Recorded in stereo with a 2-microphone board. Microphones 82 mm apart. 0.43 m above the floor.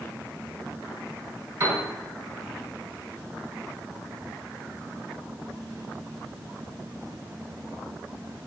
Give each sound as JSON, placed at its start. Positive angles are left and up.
{"t": 1.6, "sound": "a piano", "side_deg": -30, "distance_m": 4.5}